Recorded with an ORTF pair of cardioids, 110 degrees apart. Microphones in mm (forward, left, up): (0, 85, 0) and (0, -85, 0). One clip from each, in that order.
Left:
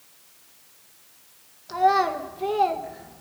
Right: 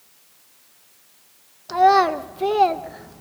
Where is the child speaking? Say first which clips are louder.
Right 5 dB; 35° right, 1.2 m.